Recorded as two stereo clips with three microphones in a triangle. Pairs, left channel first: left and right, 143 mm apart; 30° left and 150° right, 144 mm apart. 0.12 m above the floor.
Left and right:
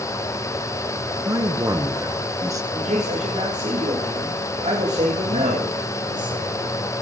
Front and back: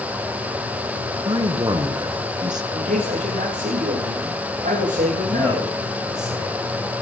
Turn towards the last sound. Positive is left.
turn(degrees=-65)